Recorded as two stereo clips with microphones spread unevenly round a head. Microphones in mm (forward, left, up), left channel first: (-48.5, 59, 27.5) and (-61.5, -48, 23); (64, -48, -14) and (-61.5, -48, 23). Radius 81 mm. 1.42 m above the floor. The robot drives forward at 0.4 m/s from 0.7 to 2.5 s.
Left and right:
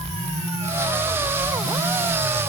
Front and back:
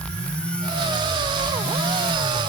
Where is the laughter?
No laughter in this recording.